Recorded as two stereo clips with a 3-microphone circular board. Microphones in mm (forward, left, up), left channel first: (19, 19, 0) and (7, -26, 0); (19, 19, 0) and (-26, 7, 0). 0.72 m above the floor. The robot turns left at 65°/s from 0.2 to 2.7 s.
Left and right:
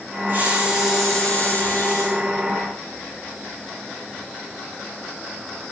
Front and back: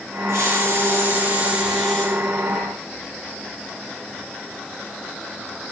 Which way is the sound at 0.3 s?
150° right.